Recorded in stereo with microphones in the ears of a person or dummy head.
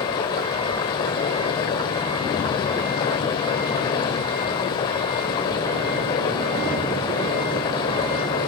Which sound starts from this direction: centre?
Running water, at 0.0 s.